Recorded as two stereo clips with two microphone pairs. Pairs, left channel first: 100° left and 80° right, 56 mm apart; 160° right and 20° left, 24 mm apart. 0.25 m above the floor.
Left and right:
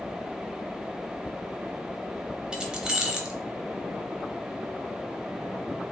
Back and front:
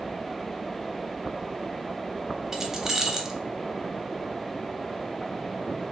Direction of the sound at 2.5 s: 35° right.